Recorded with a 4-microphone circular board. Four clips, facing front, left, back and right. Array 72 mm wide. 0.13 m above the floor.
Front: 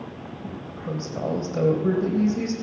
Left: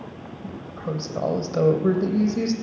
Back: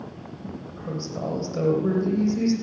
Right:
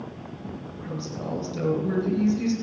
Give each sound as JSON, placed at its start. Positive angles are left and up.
{"t": 0.4, "sound": "a woman speaking", "azimuth_deg": 85, "distance_m": 4.0}